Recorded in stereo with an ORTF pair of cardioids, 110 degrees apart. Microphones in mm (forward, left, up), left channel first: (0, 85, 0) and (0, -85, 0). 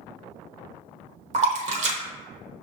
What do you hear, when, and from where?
1.3 s a splash: 45° right, 1.0 m